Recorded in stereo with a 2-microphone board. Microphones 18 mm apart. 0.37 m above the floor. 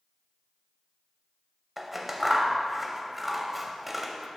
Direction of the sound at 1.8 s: 15° right (ahead or behind).